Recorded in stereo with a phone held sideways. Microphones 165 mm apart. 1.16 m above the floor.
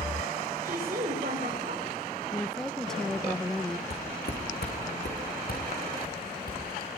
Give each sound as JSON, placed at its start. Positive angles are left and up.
{"t": 0.6, "sound": "a woman speaking", "side_deg": -55, "distance_m": 5.5}
{"t": 2.3, "sound": "a woman speaking", "side_deg": 5, "distance_m": 0.9}
{"t": 3.9, "sound": "footsteps", "side_deg": 75, "distance_m": 4.0}